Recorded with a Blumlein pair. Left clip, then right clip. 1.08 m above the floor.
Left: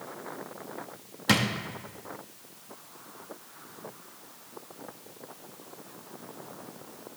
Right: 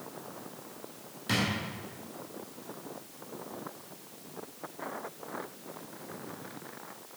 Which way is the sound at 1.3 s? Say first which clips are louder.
Left 5 dB; 60° left.